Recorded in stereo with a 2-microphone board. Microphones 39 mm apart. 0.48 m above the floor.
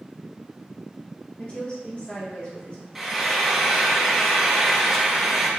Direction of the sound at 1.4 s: 35° left (ahead or behind).